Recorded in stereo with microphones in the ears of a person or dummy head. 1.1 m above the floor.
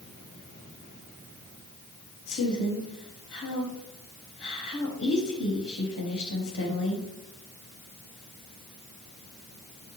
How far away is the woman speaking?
About 4 m.